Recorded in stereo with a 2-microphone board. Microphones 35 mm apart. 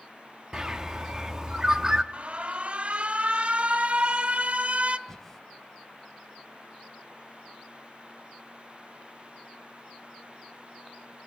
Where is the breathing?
10° left (ahead or behind), 2 m.